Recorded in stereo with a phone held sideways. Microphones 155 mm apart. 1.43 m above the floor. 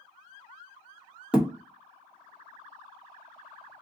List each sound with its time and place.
1.3 s a thud: 5° right (ahead or behind), 0.7 m